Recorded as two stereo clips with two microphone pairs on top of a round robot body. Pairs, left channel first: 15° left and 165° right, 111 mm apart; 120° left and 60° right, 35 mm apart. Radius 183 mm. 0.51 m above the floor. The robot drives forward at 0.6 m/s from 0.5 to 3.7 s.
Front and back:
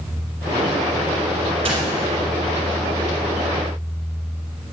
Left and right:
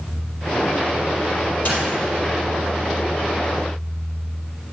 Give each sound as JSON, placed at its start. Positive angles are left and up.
{"t": 1.6, "sound": "a dropped coin", "azimuth_deg": 155, "distance_m": 4.0}